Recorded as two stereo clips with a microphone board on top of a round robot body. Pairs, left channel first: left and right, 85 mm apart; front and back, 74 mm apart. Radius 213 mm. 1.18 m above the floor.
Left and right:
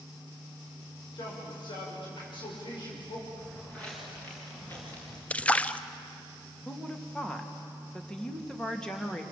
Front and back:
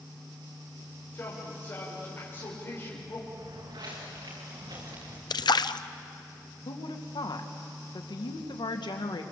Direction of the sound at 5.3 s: 15° left.